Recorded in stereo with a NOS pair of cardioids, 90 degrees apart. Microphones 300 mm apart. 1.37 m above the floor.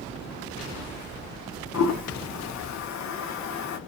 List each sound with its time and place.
1.7 s a toilet flushing: 65° left, 1.1 m